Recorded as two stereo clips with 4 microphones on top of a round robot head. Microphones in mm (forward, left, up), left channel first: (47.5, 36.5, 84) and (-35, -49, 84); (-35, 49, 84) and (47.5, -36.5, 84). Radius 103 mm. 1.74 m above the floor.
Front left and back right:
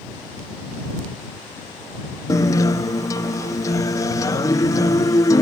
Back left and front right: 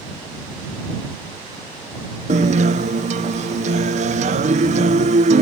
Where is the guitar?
20° right.